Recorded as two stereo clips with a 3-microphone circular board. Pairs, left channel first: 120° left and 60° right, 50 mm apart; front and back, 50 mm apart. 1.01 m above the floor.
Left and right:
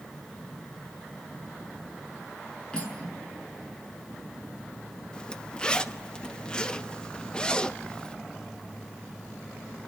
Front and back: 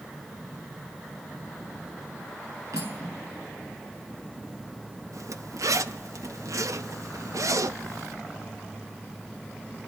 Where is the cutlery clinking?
170° right, 7.5 m.